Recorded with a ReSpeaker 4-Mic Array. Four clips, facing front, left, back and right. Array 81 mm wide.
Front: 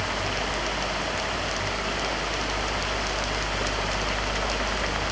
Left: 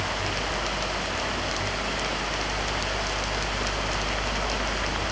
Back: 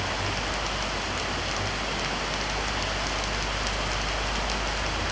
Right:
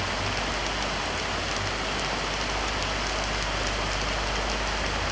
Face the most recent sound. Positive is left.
No sound to turn to.